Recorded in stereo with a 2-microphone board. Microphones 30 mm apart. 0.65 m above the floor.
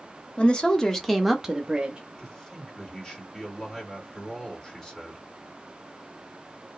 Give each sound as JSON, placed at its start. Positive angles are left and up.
{"t": 0.4, "sound": "a woman speaking", "side_deg": 35, "distance_m": 0.9}
{"t": 2.2, "sound": "a man speaking", "side_deg": 20, "distance_m": 2.0}